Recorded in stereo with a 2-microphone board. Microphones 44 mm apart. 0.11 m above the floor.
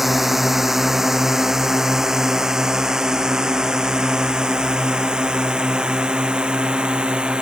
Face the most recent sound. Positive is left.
turn(degrees=-20)  # may be behind; listen again after turning